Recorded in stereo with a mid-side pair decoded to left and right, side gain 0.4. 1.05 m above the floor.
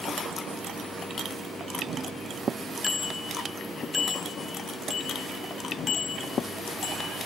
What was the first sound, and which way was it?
A bicycle bell, 35° left.